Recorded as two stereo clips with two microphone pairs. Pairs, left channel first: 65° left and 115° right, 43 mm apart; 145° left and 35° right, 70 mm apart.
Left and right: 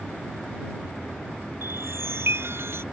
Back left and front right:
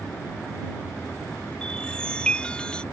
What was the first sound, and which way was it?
A chime, 135° right.